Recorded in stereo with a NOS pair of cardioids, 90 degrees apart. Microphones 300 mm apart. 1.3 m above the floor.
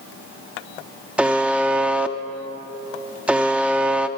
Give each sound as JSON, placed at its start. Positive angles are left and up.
{"t": 1.2, "sound": "a buzzer", "azimuth_deg": -5, "distance_m": 0.6}